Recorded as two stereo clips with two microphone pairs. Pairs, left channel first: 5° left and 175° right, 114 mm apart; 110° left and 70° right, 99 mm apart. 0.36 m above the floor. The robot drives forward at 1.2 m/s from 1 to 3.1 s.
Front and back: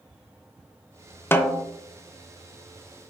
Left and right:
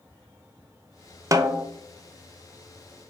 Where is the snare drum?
55° right, 0.6 m; by 1.7 s 130° right, 0.6 m.